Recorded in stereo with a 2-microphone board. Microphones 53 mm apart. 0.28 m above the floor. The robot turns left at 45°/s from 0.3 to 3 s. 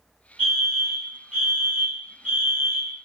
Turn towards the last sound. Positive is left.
turn(degrees=-110)